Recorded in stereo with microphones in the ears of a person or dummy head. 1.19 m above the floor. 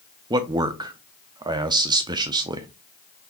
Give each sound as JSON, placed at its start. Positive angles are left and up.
{"t": 0.3, "sound": "a man speaking", "side_deg": -20, "distance_m": 0.5}